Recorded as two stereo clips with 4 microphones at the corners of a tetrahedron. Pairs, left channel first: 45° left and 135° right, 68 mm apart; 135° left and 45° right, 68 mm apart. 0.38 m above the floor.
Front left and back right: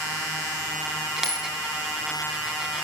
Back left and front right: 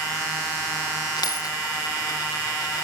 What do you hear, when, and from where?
1.2 s a dropped coin: 145° left, 1.7 m